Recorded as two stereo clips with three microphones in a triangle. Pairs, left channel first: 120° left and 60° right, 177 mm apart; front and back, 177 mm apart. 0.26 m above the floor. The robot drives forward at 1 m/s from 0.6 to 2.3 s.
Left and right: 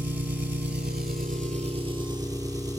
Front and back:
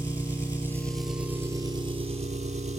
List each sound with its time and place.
0.0 s an engine running: 75° right, 1.6 m; by 2.8 s 130° right, 2 m